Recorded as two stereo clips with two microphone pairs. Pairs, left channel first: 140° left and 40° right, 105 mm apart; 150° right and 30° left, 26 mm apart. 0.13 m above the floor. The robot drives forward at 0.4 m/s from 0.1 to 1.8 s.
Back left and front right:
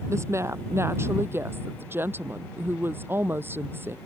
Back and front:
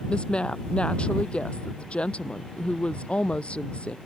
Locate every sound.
0.1 s a woman speaking: 100° right; by 4.0 s 110° right